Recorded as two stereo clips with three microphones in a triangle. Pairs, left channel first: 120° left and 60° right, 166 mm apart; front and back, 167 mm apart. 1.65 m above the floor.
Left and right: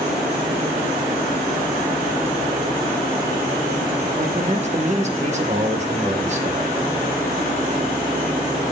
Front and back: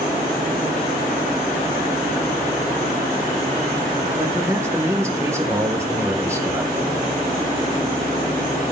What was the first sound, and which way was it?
A man speaking, 105° right.